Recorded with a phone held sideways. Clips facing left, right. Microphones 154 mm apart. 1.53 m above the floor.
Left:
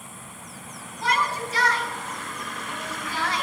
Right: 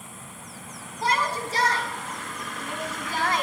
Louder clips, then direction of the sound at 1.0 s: Even; 35° right (ahead or behind).